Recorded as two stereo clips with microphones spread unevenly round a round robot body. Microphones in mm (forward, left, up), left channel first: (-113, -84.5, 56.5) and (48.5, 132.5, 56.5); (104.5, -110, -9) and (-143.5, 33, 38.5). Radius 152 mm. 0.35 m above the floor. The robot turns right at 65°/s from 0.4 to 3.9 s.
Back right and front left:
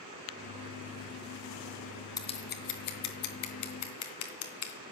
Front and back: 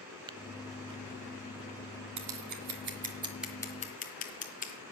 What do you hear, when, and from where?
0.3 s tapping: 135° right, 0.5 m
2.2 s scissors: 155° left, 3 m; by 4.8 s 90° right, 3 m